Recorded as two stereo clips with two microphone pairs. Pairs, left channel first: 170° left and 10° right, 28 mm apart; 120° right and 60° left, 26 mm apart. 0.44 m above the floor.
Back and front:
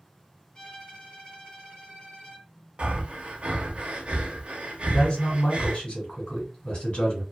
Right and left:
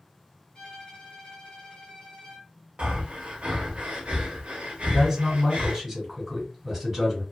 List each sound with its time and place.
0.6 s a violin: 150° right, 1.7 m
2.8 s breathing: 35° left, 0.8 m
4.9 s a man speaking: 140° left, 1.7 m